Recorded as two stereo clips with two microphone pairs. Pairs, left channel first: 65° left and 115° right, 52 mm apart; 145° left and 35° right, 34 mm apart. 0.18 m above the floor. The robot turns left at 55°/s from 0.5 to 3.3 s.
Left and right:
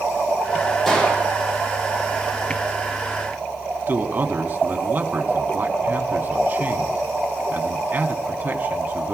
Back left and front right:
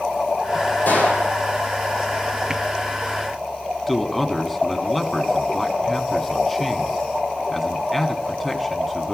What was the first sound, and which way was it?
A gunshot, 150° left.